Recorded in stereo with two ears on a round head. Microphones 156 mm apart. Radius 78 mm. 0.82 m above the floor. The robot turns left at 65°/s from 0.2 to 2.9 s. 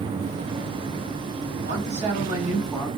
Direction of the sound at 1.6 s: 105° right.